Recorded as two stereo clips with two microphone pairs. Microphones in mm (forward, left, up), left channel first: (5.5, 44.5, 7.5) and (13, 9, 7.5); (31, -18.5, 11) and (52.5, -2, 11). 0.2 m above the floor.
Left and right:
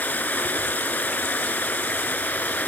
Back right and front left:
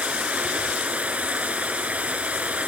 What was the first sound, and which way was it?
Running water, 65° left.